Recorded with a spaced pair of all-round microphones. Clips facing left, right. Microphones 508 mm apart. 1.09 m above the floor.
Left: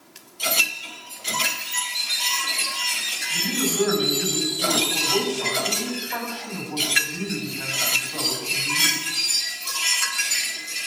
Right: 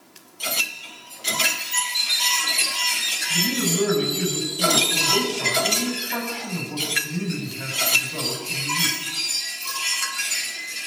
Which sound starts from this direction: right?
A man speaking, at 3.3 s.